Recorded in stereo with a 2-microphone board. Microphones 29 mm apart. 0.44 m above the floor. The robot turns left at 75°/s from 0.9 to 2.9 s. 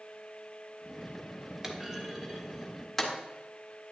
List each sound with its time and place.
1.6 s a clunk: 20° right (ahead or behind), 1.0 m; by 3.1 s 10° left (ahead or behind), 1.0 m